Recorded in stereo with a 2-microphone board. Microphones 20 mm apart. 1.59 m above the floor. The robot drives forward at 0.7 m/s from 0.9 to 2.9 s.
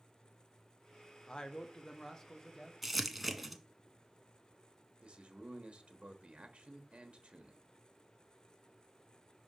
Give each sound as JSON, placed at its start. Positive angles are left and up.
{"t": 1.3, "sound": "a man speaking", "side_deg": 35, "distance_m": 0.6}
{"t": 2.8, "sound": "crumpling", "side_deg": -5, "distance_m": 1.0}
{"t": 5.0, "sound": "a man speaking", "side_deg": -70, "distance_m": 1.1}